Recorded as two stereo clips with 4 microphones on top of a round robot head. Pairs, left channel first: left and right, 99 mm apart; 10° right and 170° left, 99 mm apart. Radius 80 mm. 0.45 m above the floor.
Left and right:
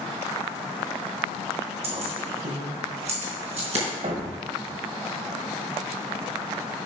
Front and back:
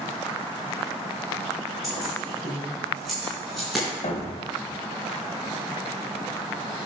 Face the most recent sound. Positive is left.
turn(degrees=-50)